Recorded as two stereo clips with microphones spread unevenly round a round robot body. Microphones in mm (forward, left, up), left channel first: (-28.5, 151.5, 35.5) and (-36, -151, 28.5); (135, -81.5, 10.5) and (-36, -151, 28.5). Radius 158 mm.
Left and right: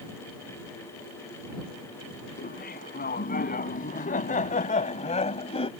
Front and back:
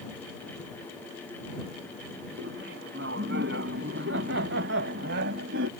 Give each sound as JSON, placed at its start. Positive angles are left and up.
{"t": 2.4, "sound": "laughter", "azimuth_deg": 150}